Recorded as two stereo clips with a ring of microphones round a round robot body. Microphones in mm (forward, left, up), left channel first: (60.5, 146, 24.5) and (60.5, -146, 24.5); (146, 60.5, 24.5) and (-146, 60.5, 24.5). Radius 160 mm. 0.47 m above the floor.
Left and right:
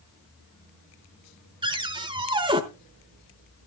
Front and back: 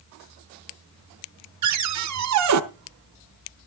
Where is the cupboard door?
165° right, 0.9 m.